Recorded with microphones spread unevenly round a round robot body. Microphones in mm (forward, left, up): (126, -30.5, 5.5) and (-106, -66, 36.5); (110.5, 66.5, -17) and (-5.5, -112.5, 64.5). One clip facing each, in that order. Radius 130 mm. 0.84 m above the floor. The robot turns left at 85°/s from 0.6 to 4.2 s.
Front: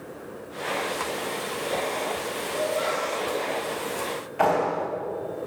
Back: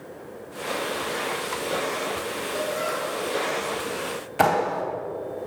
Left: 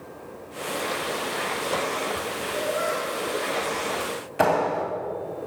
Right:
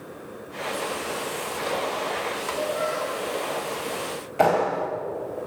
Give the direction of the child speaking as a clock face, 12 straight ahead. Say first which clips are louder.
Front 3 dB, left 1 dB; 6 o'clock.